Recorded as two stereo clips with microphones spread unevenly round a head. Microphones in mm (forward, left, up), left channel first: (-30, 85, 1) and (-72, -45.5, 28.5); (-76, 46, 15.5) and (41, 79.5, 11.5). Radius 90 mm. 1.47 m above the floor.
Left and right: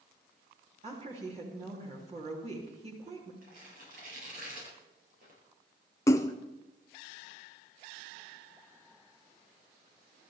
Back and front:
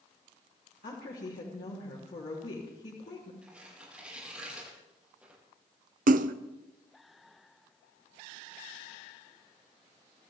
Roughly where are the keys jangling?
No keys jangling in this recording.